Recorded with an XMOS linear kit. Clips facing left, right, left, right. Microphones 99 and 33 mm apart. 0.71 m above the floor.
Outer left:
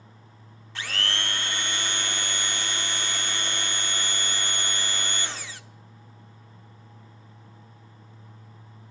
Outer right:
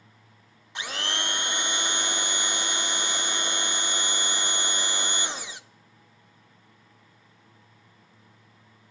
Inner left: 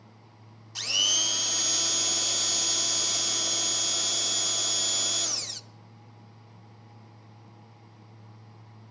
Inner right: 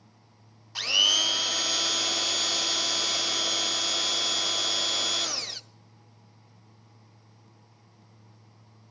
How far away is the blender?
About 0.7 m.